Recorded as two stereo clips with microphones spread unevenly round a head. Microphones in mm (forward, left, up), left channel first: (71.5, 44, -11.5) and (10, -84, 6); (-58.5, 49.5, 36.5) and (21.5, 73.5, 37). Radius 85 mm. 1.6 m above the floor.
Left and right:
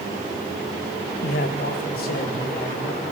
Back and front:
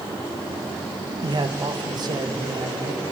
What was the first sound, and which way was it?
A man speaking, 50° left.